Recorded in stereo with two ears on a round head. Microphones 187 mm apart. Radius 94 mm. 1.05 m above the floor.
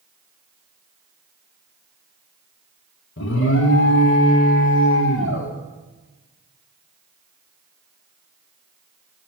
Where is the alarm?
65° left (ahead or behind), 1.1 m.